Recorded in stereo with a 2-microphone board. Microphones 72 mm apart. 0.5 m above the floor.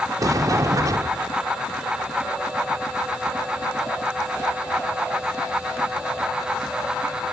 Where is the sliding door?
45° right (ahead or behind).